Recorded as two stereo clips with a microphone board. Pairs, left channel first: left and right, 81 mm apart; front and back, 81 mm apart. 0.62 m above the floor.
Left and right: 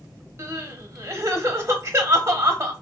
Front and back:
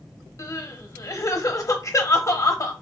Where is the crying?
45° right, 0.7 m.